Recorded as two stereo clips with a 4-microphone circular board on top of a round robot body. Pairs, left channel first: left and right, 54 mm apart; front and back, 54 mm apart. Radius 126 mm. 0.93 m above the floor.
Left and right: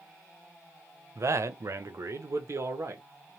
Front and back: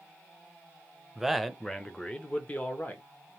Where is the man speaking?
100° right, 0.8 m; by 3.1 s 55° right, 1.4 m.